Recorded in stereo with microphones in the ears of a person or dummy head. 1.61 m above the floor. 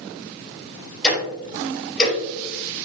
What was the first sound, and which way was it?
Ticking, 5° left (ahead or behind).